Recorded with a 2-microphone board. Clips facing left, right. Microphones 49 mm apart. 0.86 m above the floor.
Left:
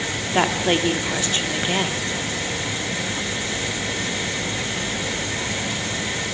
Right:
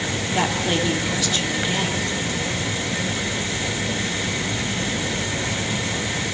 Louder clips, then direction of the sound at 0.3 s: Left 3 dB; 30° left (ahead or behind).